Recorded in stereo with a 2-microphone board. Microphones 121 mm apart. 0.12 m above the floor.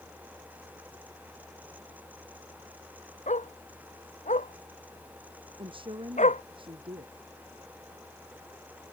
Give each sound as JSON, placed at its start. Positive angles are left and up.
{"t": 3.3, "sound": "a dog barking", "side_deg": 80}
{"t": 5.6, "sound": "a woman speaking", "side_deg": -45}